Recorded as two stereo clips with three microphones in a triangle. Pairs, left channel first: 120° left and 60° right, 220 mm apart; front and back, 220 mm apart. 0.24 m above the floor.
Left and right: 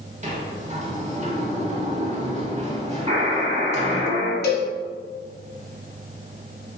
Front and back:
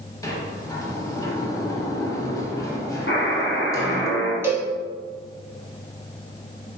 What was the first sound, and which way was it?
A sliding door, 60° right.